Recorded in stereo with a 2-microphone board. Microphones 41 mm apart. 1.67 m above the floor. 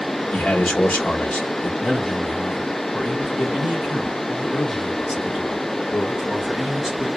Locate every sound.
0.3 s a man speaking: 35° left (ahead or behind), 1.3 m
1.8 s a man speaking: 20° right (ahead or behind), 2 m